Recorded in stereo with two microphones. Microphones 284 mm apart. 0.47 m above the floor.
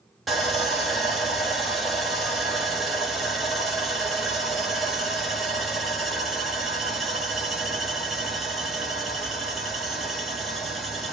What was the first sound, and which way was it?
Sawing, centre (ahead or behind).